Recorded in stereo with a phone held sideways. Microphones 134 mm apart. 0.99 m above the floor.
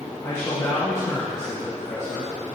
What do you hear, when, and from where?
0.2 s a man speaking: 20° left (ahead or behind), 1.4 m